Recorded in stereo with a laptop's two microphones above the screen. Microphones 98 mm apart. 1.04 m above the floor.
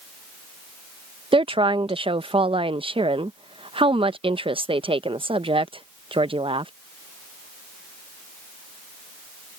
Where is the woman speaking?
65° right (ahead or behind).